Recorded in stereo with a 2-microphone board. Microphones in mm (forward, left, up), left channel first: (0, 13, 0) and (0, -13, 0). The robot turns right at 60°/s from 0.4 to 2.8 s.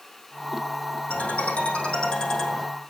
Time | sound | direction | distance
1.1 | a ringtone | 85° left | 4 m